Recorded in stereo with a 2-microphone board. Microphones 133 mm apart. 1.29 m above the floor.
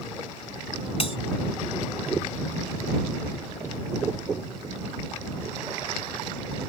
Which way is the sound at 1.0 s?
45° left (ahead or behind).